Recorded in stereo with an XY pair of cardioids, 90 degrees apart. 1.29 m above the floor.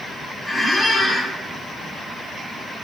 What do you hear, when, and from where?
0.5 s a squeak: 5° left, 0.9 m